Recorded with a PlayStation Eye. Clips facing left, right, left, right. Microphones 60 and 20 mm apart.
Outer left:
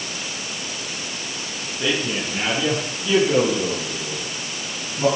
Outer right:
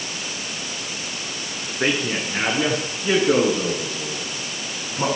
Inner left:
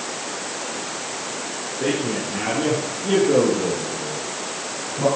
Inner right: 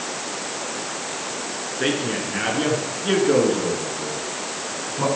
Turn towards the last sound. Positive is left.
turn(degrees=-60)  # may be behind; listen again after turning